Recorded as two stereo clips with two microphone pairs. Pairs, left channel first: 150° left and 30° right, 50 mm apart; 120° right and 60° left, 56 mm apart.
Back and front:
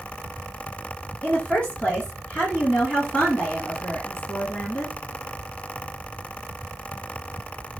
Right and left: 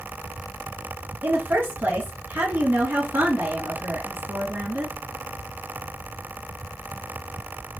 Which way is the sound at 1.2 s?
95° left.